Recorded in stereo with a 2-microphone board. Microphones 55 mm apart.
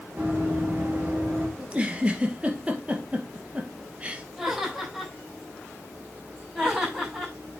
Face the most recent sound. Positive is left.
turn(degrees=-10)  # may be behind; listen again after turning